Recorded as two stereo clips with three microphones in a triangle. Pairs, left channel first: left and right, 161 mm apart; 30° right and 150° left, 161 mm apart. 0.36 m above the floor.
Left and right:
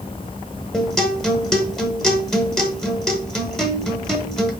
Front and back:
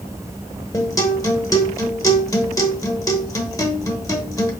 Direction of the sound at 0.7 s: 5° left.